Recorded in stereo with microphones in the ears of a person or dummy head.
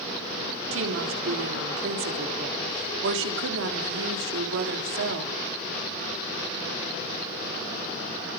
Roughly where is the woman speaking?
Right.